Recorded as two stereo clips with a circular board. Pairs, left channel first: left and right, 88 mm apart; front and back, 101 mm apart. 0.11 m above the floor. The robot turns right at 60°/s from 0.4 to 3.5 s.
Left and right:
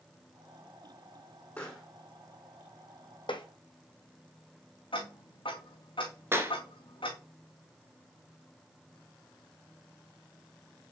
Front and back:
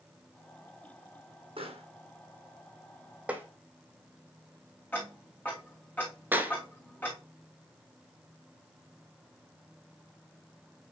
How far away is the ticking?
About 3 m.